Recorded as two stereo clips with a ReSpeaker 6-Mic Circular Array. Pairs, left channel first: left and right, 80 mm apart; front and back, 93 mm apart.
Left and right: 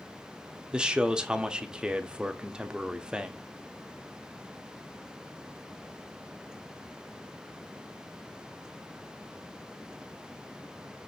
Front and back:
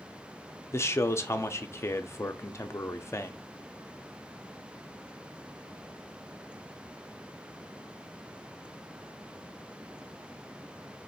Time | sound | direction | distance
0.7 | a man speaking | 20° right | 0.6 m